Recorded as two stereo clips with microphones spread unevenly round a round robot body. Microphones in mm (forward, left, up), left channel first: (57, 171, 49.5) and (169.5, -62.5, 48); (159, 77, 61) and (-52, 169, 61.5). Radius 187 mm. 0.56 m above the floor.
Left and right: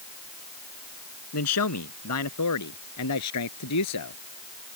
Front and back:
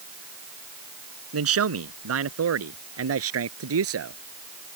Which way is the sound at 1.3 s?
155° left.